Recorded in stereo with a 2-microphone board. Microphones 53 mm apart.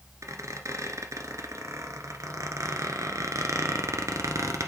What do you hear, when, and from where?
0.2 s a squeak: 80° right, 1.0 m